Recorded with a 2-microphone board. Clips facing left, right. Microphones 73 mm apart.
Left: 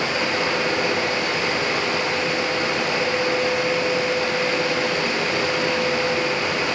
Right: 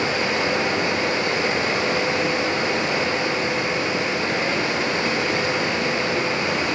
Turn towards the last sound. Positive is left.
turn(degrees=-25)  # may be behind; listen again after turning